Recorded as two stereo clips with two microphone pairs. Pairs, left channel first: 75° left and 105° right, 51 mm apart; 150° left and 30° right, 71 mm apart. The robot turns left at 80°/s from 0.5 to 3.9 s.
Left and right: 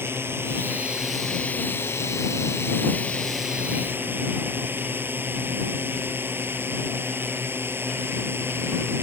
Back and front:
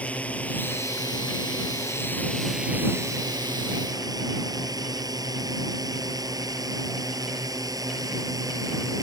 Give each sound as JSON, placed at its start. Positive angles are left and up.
{"t": 0.0, "sound": "a drone", "azimuth_deg": -140}